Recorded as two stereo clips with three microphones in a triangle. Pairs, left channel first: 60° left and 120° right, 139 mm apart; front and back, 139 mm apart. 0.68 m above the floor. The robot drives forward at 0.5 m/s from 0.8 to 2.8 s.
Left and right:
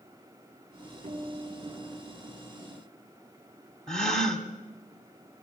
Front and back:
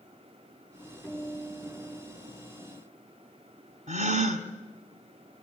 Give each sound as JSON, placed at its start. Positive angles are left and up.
{"t": 1.0, "sound": "a guitar", "azimuth_deg": -95, "distance_m": 9.0}
{"t": 3.9, "sound": "a gasp", "azimuth_deg": 145, "distance_m": 1.7}